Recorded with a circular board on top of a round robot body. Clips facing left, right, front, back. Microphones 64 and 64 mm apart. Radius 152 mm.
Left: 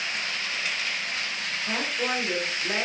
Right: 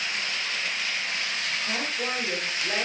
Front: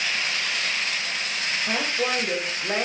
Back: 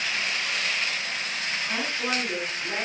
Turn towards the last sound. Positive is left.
turn(degrees=0)